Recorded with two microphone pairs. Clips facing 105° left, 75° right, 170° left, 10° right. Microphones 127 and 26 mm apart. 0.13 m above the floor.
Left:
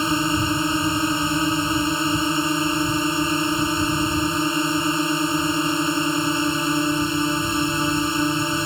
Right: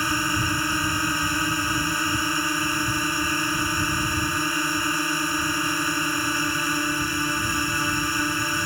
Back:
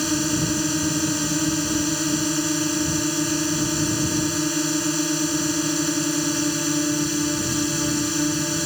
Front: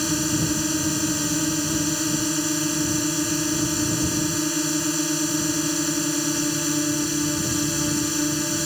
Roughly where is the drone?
Left.